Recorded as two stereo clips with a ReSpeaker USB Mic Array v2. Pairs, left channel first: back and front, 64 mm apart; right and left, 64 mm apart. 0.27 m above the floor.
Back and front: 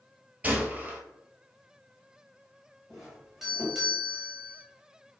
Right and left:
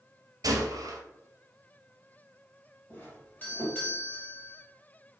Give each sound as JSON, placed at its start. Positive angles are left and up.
{"t": 0.4, "sound": "a gunshot", "azimuth_deg": 70, "distance_m": 1.0}
{"t": 2.9, "sound": "a doorbell", "azimuth_deg": -80, "distance_m": 1.8}